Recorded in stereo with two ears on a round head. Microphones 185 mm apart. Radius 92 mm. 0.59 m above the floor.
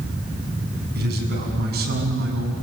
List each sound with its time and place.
0.9 s a man speaking: 50° right (ahead or behind), 6.5 m